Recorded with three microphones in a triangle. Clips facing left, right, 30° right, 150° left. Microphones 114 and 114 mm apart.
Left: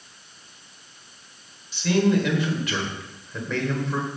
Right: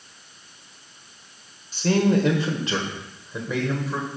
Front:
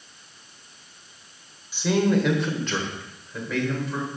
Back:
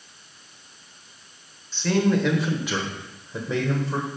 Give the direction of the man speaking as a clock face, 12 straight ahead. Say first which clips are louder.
Right 1 dB, even; 3 o'clock.